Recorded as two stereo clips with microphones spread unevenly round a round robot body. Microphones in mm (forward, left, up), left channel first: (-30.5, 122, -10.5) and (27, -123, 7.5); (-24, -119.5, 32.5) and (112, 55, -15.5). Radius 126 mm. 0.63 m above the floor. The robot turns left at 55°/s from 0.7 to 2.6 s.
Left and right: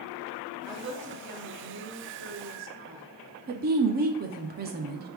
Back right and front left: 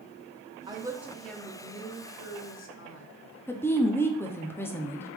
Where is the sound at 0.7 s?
Straight ahead, 0.8 m; by 3.0 s 105° right, 0.8 m.